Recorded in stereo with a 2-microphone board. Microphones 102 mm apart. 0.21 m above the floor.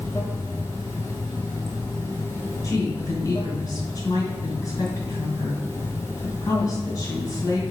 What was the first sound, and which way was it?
Running water, 25° left (ahead or behind).